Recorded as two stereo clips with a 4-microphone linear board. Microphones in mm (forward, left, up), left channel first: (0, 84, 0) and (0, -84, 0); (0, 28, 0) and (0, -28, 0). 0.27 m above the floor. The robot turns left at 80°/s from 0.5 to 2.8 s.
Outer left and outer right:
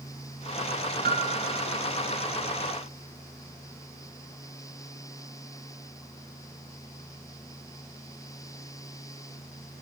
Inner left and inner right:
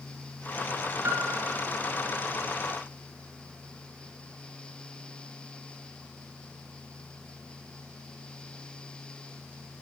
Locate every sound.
1.0 s a piano: 115° right, 2.5 m; by 1.6 s 165° right, 2.5 m